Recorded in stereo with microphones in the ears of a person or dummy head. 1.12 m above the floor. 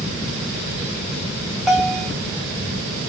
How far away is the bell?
About 1.0 m.